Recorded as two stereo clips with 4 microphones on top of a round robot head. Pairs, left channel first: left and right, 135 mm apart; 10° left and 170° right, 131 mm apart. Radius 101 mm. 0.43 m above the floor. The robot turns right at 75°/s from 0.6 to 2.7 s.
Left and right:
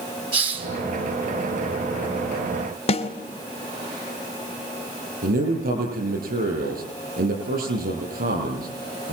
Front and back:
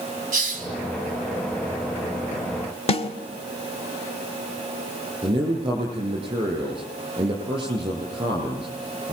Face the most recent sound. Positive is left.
turn(degrees=-110)